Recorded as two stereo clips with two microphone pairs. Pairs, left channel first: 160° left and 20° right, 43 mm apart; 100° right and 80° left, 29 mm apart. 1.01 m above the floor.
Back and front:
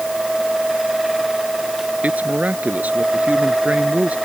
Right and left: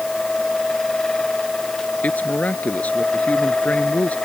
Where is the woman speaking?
70° right.